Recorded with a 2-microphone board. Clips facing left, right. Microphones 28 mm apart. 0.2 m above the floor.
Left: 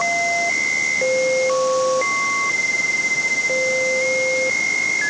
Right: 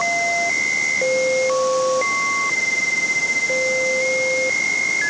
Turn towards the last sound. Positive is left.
No sound to turn to.